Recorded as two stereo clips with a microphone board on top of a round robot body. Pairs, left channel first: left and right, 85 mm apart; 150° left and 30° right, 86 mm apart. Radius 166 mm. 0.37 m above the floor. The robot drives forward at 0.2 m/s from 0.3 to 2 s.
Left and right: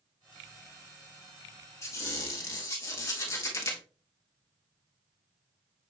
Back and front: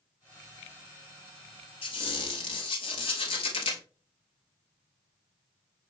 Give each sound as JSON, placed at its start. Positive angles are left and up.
{"t": 1.8, "sound": "a squeak", "azimuth_deg": 145, "distance_m": 1.0}